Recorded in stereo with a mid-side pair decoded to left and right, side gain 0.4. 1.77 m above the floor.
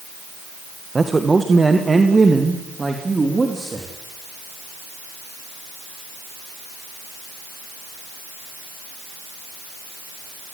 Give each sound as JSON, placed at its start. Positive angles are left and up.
{"t": 0.9, "sound": "a man speaking", "azimuth_deg": -25, "distance_m": 1.9}